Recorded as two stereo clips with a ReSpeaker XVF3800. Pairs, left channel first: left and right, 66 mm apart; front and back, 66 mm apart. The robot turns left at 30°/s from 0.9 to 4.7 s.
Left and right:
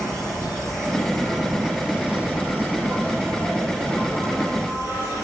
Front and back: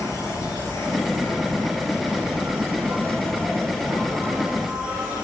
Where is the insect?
10° left, 2 m; by 5.2 s 100° right, 2 m.